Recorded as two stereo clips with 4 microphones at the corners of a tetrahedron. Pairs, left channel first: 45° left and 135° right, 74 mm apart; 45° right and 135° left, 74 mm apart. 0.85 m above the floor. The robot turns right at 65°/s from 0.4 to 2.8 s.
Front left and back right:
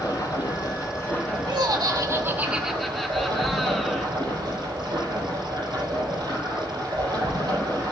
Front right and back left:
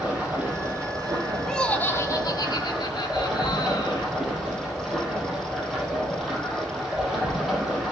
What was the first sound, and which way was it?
Running water, 60° left.